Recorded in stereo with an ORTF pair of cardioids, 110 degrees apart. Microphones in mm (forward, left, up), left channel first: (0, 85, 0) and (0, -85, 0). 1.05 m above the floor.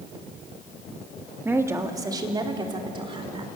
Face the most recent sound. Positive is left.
turn(degrees=-30)